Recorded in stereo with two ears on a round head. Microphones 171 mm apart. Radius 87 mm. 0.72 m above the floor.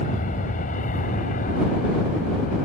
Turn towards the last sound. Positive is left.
turn(degrees=40)  # may be behind; listen again after turning